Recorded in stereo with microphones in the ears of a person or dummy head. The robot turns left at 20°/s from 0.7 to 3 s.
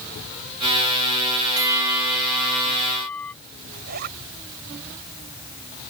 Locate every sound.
1.6 s a bell: 20° right (ahead or behind); by 3.3 s 10° left (ahead or behind)
3.7 s a zipper: 55° right (ahead or behind)